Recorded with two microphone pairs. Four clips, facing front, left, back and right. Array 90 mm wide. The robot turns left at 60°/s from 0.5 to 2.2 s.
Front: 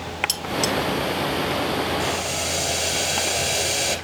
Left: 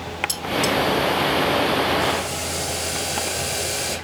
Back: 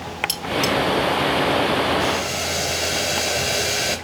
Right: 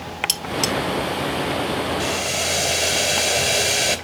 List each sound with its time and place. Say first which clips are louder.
0.3 s cutlery clinking: left 4 dB, back 4 dB; 100° right, 1.5 m; by 0.7 s 115° right, 1.5 m
2.0 s boiling: left 1 dB, back 3 dB; 100° right, 2.5 m; by 4.0 s 115° right, 2.5 m